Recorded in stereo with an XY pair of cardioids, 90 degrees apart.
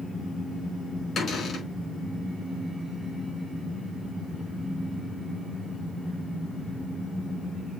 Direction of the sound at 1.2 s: 55° left.